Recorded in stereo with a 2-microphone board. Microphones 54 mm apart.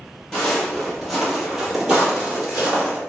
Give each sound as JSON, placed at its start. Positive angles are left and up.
{"t": 0.3, "sound": "footsteps", "side_deg": 10, "distance_m": 1.5}